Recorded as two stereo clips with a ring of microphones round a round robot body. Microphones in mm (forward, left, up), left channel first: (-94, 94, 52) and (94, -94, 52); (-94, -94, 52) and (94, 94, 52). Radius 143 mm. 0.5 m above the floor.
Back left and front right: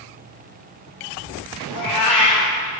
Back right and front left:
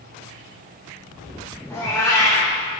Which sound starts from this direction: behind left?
A cat meowing, at 1.7 s.